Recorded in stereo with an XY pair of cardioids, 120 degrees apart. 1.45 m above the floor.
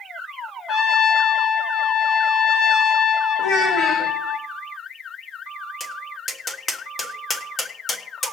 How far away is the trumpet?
About 1.8 m.